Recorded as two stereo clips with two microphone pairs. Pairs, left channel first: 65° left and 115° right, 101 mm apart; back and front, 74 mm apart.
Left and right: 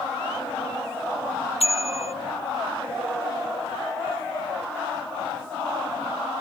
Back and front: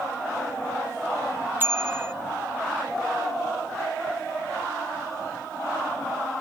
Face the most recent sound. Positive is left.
turn(degrees=60)